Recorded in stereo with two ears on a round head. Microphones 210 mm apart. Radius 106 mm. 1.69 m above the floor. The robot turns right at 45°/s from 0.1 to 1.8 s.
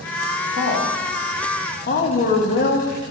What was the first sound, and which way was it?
A woman speaking, 50° left (ahead or behind).